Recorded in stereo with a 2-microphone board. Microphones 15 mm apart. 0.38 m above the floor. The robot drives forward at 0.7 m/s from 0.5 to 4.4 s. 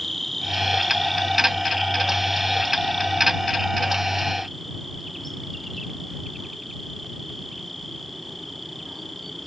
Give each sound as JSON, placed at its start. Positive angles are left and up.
{"t": 0.0, "sound": "an insect", "side_deg": 15}